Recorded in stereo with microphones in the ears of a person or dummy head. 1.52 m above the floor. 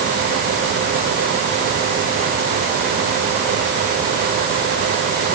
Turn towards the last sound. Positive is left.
No sound to turn to.